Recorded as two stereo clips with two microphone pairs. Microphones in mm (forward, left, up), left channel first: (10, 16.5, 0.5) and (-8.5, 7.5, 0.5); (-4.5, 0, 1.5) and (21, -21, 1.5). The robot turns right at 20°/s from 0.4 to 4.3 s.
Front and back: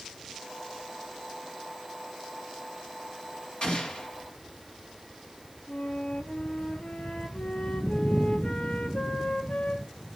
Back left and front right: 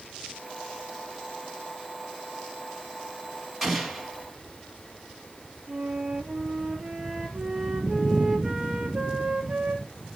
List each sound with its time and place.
3.6 s an explosion: 45° left, 1.8 m; by 4.1 s 55° left, 1.8 m
5.7 s a flute: 30° left, 1.2 m